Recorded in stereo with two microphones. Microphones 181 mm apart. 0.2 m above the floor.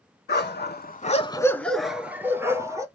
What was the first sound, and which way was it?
A dog barking, 65° left (ahead or behind).